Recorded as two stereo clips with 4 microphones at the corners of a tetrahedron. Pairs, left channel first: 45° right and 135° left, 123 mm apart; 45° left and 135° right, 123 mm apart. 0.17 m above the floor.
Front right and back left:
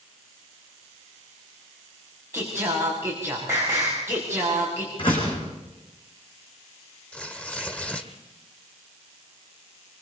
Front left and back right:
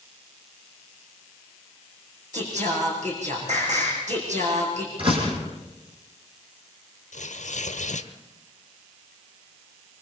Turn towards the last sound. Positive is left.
turn(degrees=35)